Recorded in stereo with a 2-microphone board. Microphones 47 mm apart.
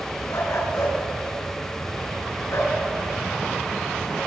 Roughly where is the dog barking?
Left.